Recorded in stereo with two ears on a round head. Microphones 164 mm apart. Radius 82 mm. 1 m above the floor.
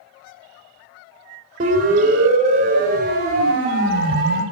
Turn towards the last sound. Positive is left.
turn(degrees=-60)  # may be behind; listen again after turning